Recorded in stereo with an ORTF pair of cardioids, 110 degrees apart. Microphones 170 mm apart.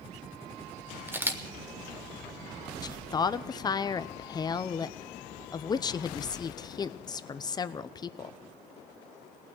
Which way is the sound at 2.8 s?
25° left.